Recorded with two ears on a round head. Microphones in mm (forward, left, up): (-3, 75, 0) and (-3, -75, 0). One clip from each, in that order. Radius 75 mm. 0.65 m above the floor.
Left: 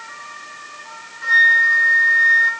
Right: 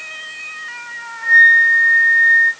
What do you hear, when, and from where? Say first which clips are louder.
1.2 s a flute: right 3 dB; 50° left (ahead or behind), 3 m